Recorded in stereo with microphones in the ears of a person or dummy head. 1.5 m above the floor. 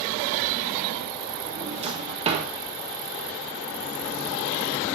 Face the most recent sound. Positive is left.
turn(degrees=-30)  # may be behind; listen again after turning